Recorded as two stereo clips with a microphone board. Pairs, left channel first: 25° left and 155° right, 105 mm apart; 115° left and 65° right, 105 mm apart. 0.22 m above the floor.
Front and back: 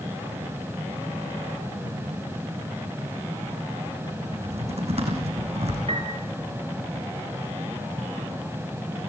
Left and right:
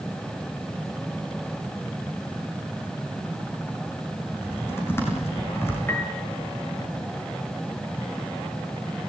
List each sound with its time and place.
4.3 s typing on a keyboard: straight behind, 7.5 m
5.9 s a piano: straight behind, 3.5 m